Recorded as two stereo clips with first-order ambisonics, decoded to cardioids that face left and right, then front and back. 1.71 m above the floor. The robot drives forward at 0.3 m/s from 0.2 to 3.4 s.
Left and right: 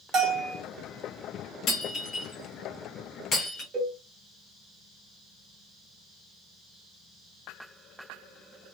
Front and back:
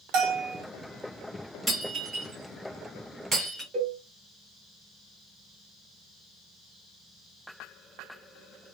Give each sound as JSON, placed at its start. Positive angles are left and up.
{"t": 0.1, "sound": "a bell", "azimuth_deg": -155, "distance_m": 1.4}
{"t": 1.7, "sound": "breaking glass", "azimuth_deg": 115, "distance_m": 1.9}
{"t": 3.7, "sound": "a cowbell", "azimuth_deg": -140, "distance_m": 1.7}